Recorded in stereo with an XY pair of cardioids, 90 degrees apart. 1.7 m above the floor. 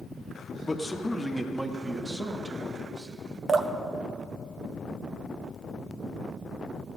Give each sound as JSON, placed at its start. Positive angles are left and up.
{"t": 0.6, "sound": "a man speaking", "azimuth_deg": 20, "distance_m": 1.3}
{"t": 3.5, "sound": "dripping", "azimuth_deg": -55, "distance_m": 1.0}